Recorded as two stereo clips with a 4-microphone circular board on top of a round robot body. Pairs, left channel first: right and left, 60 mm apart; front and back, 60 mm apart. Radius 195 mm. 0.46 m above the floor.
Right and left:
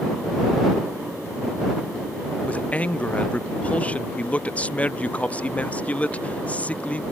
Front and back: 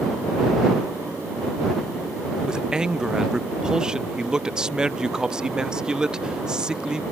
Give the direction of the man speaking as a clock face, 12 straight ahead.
4 o'clock.